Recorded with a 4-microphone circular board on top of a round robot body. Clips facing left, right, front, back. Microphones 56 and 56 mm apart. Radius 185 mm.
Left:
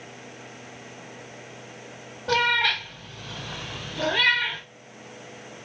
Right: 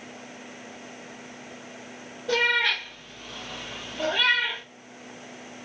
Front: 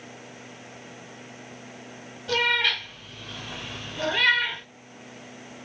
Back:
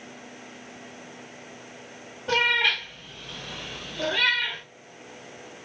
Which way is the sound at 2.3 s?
120° left.